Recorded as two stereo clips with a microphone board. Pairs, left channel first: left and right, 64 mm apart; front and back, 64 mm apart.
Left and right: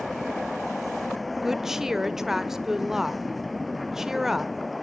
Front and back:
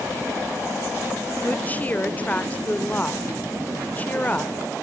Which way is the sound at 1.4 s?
15° right.